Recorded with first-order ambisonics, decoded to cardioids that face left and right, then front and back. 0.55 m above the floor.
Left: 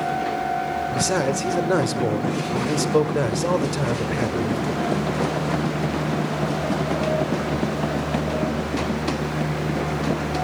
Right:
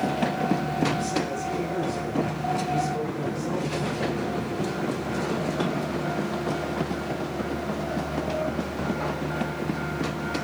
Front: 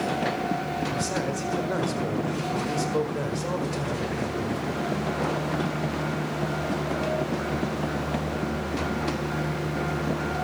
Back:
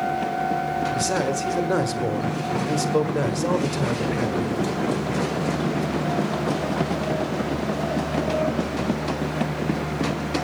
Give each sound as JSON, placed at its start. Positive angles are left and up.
{"t": 0.9, "sound": "a man speaking", "azimuth_deg": 115, "distance_m": 1.7}